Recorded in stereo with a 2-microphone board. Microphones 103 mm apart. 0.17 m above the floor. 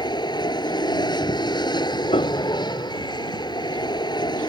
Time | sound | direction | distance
0.0 | an aircraft | 45° left (ahead or behind) | ?
2.1 | a piano | 70° left (ahead or behind) | ?